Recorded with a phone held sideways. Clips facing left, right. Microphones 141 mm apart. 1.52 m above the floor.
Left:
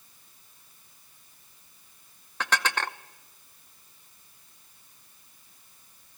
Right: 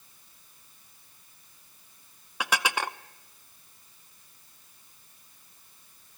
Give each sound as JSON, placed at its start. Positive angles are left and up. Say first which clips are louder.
{"t": 2.4, "sound": "dishes clattering", "louder": "even", "side_deg": -10, "distance_m": 0.7}